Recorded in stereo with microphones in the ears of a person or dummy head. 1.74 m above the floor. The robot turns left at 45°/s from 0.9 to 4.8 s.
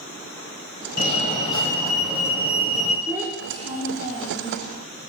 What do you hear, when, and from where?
1.0 s a fire alarm: 55° left, 2 m; by 3.0 s 35° right, 2 m
3.1 s a child speaking: 5° right (ahead or behind), 2.5 m; by 4.6 s 60° right (ahead or behind), 2.5 m